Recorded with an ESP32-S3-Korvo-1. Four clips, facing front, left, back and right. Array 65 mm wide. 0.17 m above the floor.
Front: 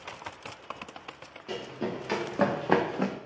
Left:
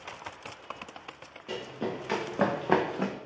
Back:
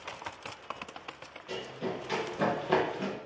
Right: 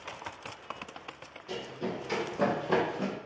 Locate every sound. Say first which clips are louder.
1.5 s running footsteps: left 2 dB, front 2 dB; 50° left, 1.5 m; by 3.1 s 35° left, 0.5 m